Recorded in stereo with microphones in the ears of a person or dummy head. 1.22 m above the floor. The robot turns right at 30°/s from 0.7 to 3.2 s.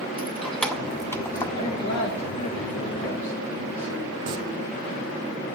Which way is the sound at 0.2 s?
5° left (ahead or behind).